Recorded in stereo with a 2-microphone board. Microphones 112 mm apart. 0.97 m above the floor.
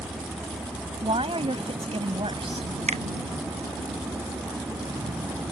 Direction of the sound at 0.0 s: 55° right (ahead or behind).